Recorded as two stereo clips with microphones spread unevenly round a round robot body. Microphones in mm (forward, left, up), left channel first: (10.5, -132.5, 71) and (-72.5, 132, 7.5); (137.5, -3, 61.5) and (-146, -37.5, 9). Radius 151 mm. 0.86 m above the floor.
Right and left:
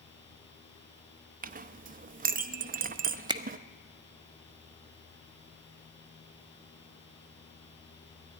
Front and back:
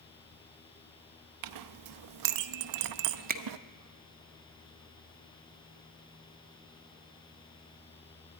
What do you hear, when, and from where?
1.4 s a clink: 170° left, 0.5 m
3.3 s a finger snap: 160° left, 0.8 m